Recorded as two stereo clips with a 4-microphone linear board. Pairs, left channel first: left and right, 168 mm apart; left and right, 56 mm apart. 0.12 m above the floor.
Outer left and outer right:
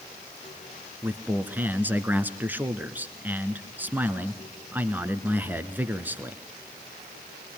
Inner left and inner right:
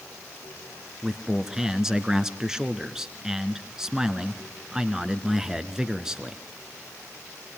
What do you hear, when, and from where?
1.0 s a man speaking: 10° right (ahead or behind), 1.4 m